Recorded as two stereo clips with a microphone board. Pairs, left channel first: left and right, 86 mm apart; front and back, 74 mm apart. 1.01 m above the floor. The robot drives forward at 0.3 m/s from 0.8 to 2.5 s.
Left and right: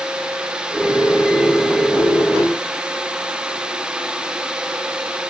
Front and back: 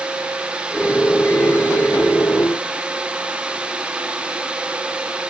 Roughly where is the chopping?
I don't hear chopping.